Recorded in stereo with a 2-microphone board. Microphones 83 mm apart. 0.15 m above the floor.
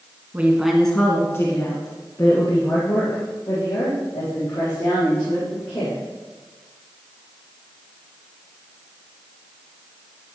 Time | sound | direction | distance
0.3 | a woman speaking | 20° right (ahead or behind) | 1.6 m